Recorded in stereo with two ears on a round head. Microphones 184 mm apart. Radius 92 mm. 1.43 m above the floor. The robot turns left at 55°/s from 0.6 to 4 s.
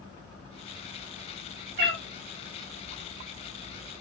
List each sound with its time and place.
1.8 s a cat meowing: 55° right (ahead or behind), 1.2 m; by 2.0 s 50° right (ahead or behind), 1.2 m